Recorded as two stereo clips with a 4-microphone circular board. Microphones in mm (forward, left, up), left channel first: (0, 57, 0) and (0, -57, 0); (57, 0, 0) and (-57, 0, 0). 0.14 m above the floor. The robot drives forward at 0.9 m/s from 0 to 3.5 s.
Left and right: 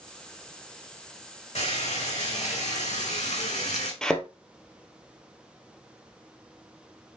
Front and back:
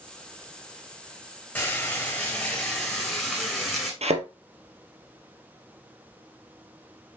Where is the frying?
75° left, 5 m; by 3.9 s 95° left, 4.5 m.